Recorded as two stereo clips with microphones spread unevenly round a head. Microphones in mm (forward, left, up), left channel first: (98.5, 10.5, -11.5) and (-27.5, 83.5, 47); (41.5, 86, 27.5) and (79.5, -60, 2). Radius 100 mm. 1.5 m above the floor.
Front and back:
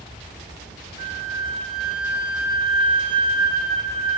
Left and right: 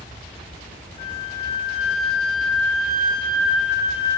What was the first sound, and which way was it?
A flute, 155° left.